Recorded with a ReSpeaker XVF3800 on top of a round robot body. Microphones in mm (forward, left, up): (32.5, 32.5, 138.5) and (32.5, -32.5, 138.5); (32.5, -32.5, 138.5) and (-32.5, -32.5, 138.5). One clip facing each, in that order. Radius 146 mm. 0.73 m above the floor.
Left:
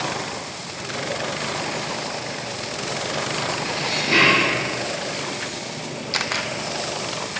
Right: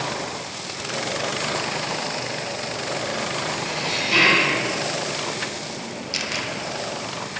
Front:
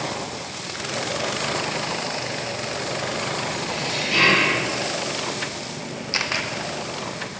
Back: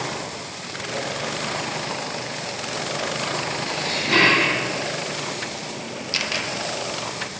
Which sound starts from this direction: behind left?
Dishes clattering, at 3.7 s.